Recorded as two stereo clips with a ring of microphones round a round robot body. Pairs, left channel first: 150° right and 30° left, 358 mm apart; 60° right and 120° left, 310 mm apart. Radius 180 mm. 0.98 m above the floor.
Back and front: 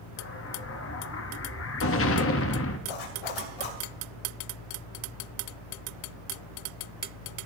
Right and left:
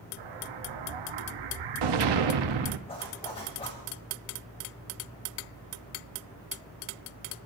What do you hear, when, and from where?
0.2 s an explosion: 150° left, 0.9 m
2.9 s a zipper: 135° right, 3 m